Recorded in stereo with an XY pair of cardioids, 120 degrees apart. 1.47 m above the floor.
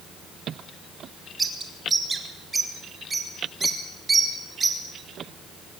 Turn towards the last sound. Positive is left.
turn(degrees=-20)